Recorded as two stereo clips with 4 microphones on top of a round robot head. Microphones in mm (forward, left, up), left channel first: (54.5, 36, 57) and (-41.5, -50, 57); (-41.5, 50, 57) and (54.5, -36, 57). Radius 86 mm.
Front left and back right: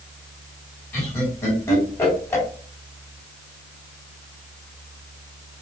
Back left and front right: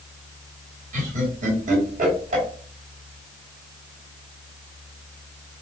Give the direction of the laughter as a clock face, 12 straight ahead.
1 o'clock.